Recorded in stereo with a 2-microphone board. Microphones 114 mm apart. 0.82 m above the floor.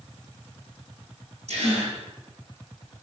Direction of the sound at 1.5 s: 70° right (ahead or behind).